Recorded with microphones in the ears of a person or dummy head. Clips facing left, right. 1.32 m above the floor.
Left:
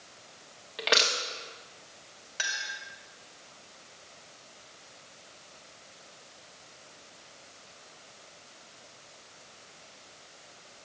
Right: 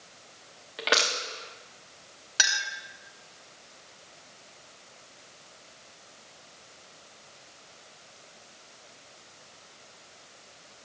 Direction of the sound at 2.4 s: 70° right (ahead or behind).